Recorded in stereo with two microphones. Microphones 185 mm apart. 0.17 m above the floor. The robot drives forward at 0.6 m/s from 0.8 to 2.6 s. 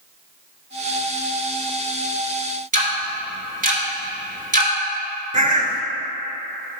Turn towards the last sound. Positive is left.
turn(degrees=-40)  # may be behind; listen again after turning